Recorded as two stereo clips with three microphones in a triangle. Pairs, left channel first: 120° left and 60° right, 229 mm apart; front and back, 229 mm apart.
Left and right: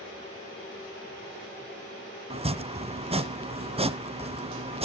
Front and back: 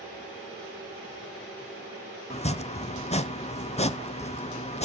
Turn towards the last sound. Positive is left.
turn(degrees=-25)